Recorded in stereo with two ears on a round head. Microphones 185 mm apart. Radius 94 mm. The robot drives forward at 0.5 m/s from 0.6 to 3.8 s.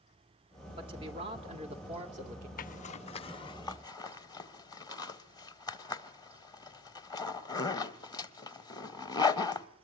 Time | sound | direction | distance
0.8 | a man speaking | 25° right (ahead or behind) | 2.5 m
2.6 | a zipper | 40° left (ahead or behind) | 0.5 m